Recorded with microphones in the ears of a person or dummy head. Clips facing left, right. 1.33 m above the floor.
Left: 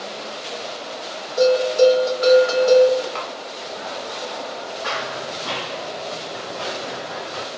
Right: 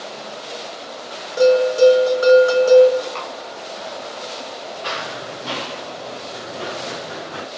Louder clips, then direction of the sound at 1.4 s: Right 2 dB; 45° right (ahead or behind).